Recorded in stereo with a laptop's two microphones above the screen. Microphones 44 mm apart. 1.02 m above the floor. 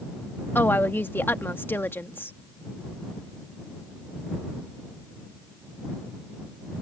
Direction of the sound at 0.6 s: 55° left (ahead or behind).